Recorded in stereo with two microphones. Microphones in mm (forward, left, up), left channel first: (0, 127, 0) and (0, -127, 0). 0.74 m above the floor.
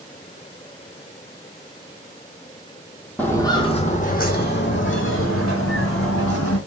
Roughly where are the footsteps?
Centre.